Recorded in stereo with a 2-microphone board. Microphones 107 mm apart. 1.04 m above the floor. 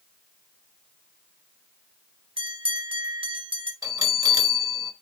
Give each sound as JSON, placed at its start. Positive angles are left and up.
{"t": 2.4, "sound": "a bell", "side_deg": -60, "distance_m": 1.2}
{"t": 3.8, "sound": "a bell", "side_deg": -35, "distance_m": 1.1}